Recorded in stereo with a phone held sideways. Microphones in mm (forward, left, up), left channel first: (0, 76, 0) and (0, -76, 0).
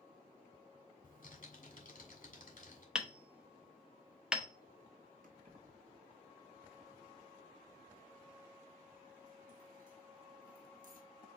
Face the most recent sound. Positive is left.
turn(degrees=-65)  # may be behind; listen again after turning